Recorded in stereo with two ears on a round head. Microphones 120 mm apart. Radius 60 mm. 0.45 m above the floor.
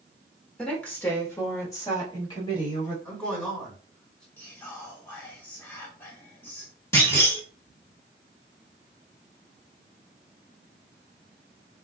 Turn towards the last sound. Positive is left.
turn(degrees=20)  # may be behind; listen again after turning